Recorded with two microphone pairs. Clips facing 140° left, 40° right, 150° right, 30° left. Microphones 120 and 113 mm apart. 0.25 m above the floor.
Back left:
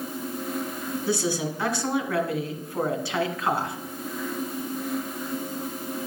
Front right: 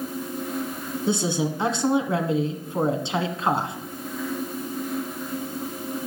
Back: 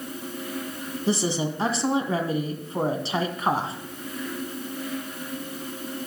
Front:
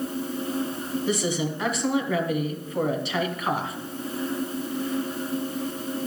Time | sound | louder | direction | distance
1.1 | a woman speaking | front right 3 dB, back 3 dB | 100° right | 1.7 m